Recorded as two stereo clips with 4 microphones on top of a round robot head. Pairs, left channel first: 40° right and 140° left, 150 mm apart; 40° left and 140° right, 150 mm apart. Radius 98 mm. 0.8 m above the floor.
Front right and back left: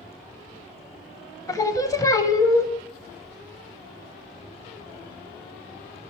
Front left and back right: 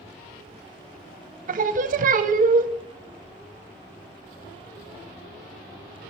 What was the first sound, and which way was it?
Singing, 110° right.